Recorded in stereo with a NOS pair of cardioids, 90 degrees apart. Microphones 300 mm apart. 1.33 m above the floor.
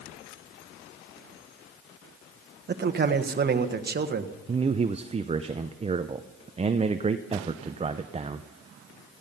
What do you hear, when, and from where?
2.7 s a man speaking: 35° right, 1.3 m
4.5 s a man speaking: 20° right, 0.6 m